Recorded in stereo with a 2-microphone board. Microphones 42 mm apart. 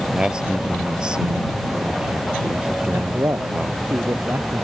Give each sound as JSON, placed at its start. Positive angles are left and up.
{"t": 0.1, "sound": "a man speaking", "side_deg": -20}
{"t": 2.9, "sound": "a man speaking", "side_deg": -80}